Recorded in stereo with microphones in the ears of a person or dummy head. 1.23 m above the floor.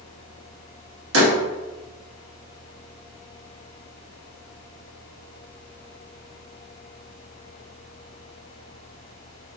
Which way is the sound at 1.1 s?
80° right.